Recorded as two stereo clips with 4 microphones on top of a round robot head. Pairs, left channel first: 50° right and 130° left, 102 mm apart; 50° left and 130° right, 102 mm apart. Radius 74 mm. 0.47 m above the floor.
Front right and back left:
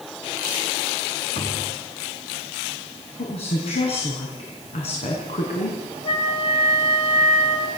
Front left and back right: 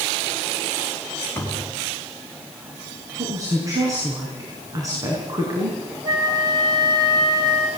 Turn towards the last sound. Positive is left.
turn(degrees=-80)